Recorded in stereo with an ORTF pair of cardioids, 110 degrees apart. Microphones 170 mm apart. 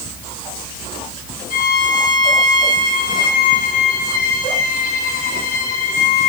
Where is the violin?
60° left, 10 m.